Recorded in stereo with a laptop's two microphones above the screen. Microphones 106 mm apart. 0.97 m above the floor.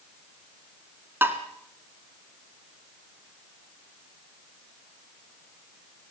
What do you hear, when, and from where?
1.2 s tapping: 20° right (ahead or behind), 1.7 m